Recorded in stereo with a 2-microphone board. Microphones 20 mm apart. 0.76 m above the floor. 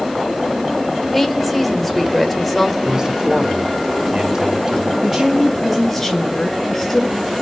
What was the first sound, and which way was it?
A woman speaking, 15° left (ahead or behind).